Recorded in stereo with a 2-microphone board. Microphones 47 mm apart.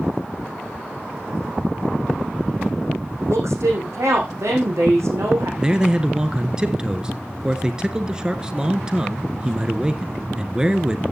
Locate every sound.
3.3 s a woman speaking: 75° right (ahead or behind), 6 m
5.6 s a man speaking: 20° right (ahead or behind), 1.3 m